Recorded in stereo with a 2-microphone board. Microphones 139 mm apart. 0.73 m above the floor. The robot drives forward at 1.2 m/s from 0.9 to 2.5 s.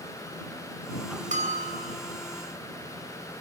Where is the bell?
65° right (ahead or behind), 3 m; by 2.0 s 50° right (ahead or behind), 3.5 m.